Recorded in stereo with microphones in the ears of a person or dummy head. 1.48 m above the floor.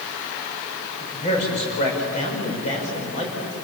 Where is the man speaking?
40° left (ahead or behind), 6.5 m.